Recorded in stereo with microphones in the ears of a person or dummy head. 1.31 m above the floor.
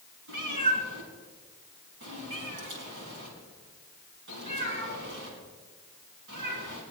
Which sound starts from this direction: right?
A cat meowing, at 0.3 s.